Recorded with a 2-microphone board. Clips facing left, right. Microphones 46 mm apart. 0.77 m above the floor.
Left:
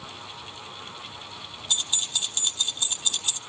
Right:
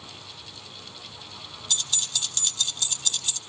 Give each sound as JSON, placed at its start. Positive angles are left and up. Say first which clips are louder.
{"t": 1.7, "sound": "keys jangling", "louder": "left 2 dB", "side_deg": 20, "distance_m": 1.0}